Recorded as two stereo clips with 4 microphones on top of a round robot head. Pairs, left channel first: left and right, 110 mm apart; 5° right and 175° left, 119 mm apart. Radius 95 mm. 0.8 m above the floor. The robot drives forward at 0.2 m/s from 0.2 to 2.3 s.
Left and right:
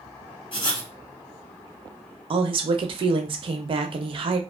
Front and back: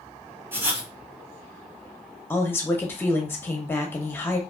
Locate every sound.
0.5 s writing: 110° left, 1.4 m; by 0.9 s 115° left, 1.4 m
2.3 s a woman speaking: 75° right, 0.5 m